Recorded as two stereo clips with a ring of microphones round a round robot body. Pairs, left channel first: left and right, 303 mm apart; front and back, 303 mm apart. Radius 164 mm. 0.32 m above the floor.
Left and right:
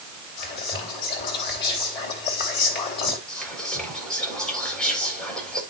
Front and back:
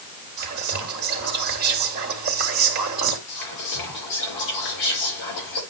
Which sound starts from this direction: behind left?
Whispering, at 0.4 s.